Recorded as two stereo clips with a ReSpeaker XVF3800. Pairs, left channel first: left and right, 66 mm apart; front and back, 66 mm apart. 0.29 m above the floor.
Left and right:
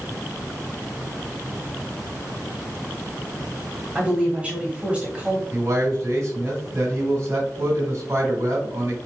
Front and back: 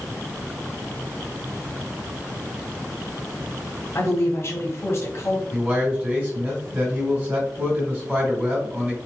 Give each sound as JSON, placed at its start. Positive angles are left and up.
{"t": 4.0, "sound": "a woman speaking", "azimuth_deg": -20, "distance_m": 1.1}
{"t": 5.5, "sound": "a man speaking", "azimuth_deg": -120, "distance_m": 2.0}